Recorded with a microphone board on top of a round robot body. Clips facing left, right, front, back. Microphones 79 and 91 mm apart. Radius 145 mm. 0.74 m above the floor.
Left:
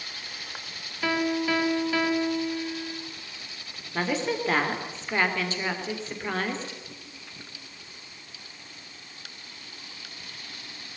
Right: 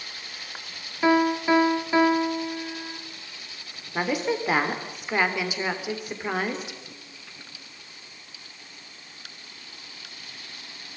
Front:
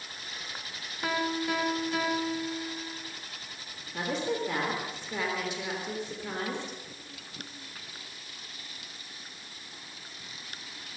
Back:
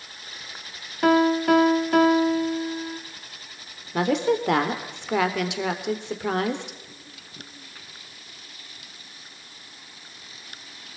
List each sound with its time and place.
1.0 s a piano: 155° right, 2.5 m
3.9 s a woman speaking: 170° right, 3.5 m